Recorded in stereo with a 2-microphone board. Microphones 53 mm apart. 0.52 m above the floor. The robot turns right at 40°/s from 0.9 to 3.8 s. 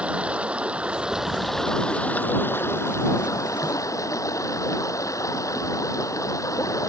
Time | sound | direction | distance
0.0 | running water | 20° right | ?